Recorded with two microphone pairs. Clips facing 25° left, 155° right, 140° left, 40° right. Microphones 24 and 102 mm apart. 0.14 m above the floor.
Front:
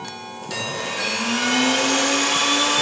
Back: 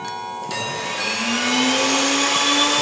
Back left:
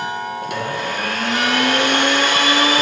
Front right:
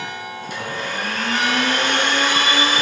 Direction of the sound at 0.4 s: 125° left.